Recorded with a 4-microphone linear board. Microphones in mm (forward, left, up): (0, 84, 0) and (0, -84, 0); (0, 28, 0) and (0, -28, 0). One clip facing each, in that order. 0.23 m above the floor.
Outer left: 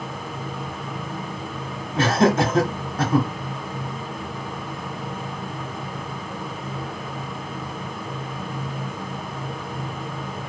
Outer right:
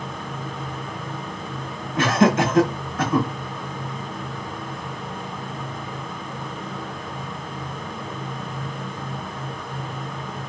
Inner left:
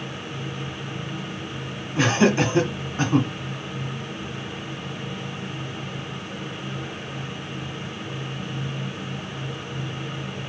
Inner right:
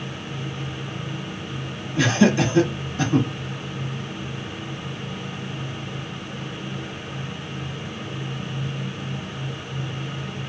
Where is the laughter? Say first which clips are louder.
Even, inner right 1 dB; 35° left (ahead or behind), 1.3 m.